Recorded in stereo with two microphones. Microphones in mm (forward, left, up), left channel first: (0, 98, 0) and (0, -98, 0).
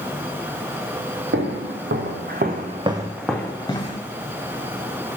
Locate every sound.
1.3 s footsteps: 85° right, 1.0 m; by 4.0 s 30° left (ahead or behind), 0.7 m